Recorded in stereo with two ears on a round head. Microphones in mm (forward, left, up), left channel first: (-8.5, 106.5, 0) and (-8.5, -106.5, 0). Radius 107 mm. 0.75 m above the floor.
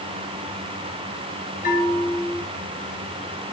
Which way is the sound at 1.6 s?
35° left (ahead or behind).